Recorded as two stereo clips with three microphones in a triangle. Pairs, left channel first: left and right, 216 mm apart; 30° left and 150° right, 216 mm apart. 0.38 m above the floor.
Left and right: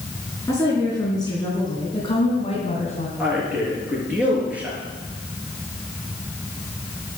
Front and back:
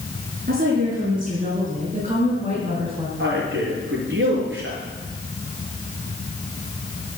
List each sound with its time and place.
0.5 s a woman speaking: 165° left, 4.5 m; by 3.1 s 145° left, 3 m
3.2 s a man speaking: 175° right, 5.5 m